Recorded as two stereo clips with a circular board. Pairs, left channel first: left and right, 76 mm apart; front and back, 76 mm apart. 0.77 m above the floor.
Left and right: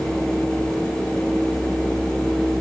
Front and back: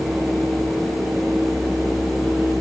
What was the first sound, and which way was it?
Only background noise.